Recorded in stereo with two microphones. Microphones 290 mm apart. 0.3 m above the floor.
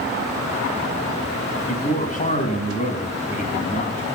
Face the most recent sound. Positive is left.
turn(degrees=25)  # may be behind; listen again after turning